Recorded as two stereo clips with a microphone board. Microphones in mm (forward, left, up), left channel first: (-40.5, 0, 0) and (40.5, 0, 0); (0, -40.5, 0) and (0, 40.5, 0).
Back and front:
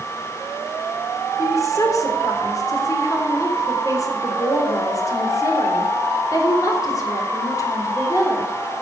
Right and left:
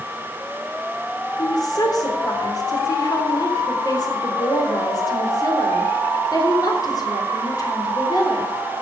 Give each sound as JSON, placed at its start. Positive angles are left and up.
{"t": 1.4, "sound": "a woman speaking", "azimuth_deg": -130, "distance_m": 3.5}